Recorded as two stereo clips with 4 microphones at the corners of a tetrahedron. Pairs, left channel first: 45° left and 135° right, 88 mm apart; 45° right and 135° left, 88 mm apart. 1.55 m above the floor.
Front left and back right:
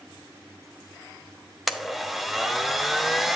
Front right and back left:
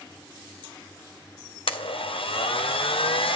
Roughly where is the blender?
Ahead right.